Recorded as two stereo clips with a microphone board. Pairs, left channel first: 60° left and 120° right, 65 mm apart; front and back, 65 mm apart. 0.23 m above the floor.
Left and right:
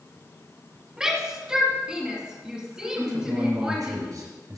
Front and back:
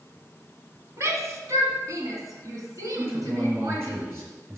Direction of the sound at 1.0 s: 165° left.